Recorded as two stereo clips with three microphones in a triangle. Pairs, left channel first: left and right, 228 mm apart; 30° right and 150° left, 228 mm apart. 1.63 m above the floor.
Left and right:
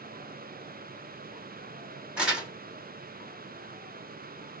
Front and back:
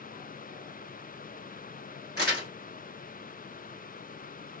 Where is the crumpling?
175° right, 2 m.